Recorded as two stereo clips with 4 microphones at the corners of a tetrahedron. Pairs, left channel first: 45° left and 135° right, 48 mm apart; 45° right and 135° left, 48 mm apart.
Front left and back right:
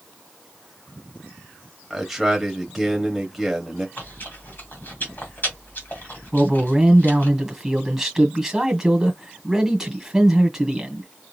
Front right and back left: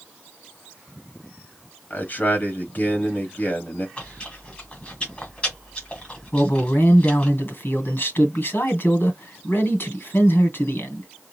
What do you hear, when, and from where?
1.9 s a man speaking: 50° right, 1.3 m
4.0 s chewing: 10° left, 1.8 m
6.3 s a man speaking: 55° right, 2.0 m